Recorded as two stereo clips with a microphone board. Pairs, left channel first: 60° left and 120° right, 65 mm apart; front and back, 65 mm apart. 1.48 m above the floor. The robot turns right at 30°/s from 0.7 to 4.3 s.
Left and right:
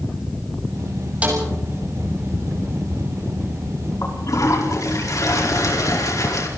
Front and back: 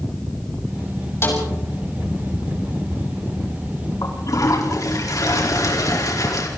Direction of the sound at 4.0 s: 20° left.